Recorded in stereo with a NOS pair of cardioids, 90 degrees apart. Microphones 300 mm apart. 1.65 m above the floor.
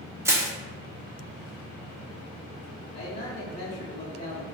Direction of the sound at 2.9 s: 30° left.